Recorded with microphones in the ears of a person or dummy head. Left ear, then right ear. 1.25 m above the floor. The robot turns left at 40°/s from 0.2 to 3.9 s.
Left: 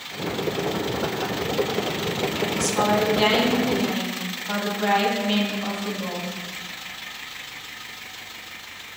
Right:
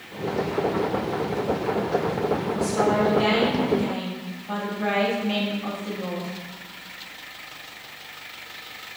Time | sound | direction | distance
2.5 | a woman speaking | 90° left | 1.8 m